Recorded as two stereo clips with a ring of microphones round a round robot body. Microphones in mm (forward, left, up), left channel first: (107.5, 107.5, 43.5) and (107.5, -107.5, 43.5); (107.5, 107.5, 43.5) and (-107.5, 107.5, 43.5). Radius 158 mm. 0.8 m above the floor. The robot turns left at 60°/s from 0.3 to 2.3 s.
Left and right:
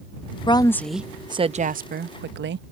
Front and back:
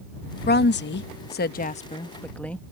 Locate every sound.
0.5 s a woman speaking: 30° left; by 2.6 s 85° right